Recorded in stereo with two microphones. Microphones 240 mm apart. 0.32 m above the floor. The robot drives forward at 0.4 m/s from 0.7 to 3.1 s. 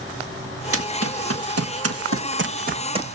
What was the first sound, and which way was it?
Running footsteps, 70° right (ahead or behind).